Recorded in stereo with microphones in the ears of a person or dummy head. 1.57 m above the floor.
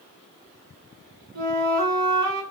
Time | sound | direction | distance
1.4 | a flute | 85° right | 1.3 m